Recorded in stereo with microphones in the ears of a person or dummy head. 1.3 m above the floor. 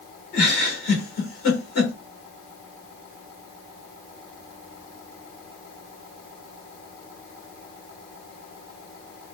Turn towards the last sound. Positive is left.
turn(degrees=50)  # may be behind; listen again after turning